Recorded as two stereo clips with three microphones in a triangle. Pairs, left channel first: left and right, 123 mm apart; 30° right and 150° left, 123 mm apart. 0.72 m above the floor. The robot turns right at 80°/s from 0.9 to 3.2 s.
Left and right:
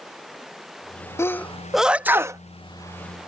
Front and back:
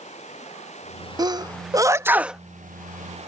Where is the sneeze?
140° left; by 2.4 s 125° right.